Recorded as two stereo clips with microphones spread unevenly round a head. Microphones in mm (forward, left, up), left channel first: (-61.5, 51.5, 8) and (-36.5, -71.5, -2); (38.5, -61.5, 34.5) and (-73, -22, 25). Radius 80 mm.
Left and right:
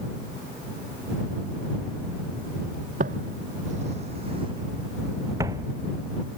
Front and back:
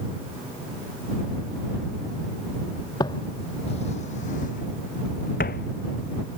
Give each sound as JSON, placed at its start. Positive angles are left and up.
{"t": 3.0, "sound": "footsteps", "azimuth_deg": -70}